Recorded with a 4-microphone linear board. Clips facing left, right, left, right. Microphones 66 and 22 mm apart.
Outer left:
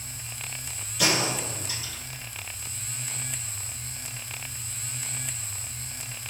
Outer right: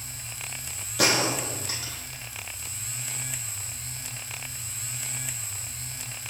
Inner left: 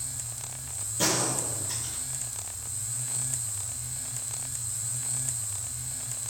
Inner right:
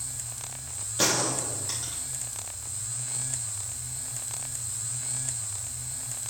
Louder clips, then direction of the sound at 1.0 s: Outer right 2 dB, inner right 2 dB; 85° right.